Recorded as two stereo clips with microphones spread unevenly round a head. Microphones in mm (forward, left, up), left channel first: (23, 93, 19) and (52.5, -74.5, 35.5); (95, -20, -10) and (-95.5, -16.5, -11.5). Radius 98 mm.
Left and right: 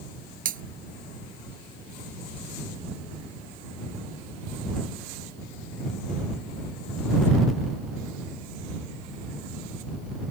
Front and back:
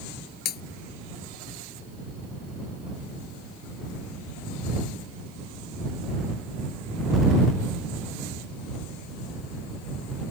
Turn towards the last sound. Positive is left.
turn(degrees=-40)